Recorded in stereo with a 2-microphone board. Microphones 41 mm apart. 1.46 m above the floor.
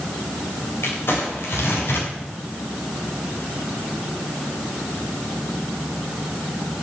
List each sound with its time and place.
0.8 s crumpling: 70° left (ahead or behind), 3.5 m